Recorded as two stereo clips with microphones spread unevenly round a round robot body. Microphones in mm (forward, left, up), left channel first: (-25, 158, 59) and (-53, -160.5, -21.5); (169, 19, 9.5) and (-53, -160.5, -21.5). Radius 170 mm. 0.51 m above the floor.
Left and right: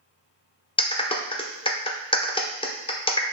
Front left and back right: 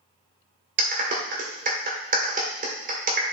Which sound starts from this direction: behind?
A clap, at 0.8 s.